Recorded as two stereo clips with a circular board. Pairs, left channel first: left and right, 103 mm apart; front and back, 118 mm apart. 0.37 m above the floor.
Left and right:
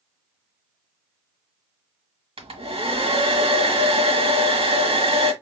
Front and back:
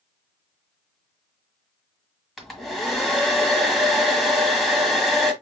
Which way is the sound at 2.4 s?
90° right.